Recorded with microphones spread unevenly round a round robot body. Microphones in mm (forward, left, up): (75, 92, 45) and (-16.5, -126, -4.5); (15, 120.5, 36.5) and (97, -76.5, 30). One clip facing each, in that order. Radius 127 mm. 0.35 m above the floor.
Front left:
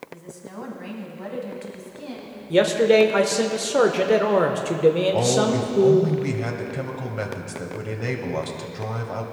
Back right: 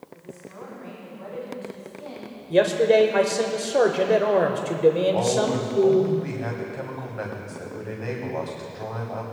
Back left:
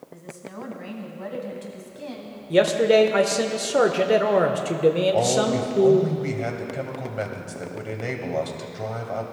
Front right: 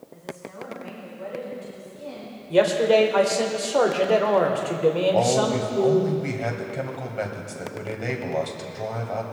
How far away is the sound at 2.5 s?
About 0.9 m.